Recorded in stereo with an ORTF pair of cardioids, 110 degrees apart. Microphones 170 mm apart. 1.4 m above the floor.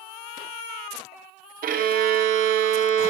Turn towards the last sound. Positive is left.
turn(degrees=-60)